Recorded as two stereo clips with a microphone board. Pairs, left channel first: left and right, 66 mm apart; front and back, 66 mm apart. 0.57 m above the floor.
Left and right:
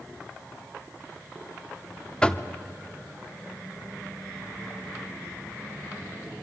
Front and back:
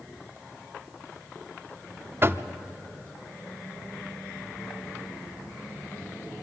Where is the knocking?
160° left, 0.9 m.